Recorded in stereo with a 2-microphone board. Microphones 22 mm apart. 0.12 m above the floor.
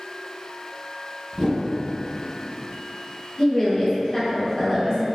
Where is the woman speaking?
25° left (ahead or behind), 1.1 m.